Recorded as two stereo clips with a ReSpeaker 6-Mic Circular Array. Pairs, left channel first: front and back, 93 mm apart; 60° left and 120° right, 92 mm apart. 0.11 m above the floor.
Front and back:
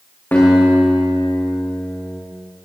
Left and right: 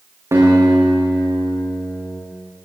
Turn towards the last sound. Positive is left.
turn(degrees=-70)